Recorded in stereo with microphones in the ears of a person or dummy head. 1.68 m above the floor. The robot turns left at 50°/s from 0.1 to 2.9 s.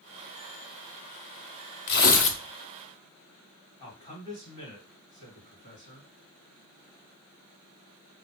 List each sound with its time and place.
1.9 s tearing paper: 60° left (ahead or behind), 0.7 m; by 2.4 s 35° left (ahead or behind), 0.7 m
3.8 s a man speaking: 35° left (ahead or behind), 2 m